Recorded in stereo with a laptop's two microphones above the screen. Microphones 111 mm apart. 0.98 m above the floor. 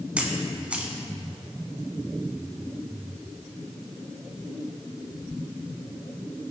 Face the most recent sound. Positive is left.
turn(degrees=-10)  # may be behind; listen again after turning